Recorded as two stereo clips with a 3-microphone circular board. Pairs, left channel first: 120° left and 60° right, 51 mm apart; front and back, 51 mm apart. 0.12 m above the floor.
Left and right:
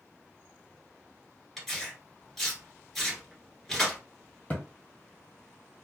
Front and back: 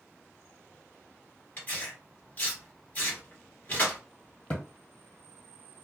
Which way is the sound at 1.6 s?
40° left.